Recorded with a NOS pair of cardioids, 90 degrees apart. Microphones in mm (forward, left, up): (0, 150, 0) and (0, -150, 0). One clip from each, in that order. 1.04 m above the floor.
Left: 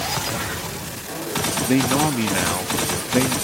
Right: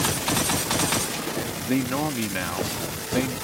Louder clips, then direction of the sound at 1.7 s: Left 6 dB; 30° left.